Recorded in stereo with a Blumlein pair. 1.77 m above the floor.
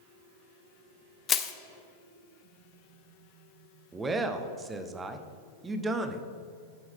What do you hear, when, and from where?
1.3 s crushing: 25° left, 0.7 m
3.9 s a man speaking: 15° right, 0.8 m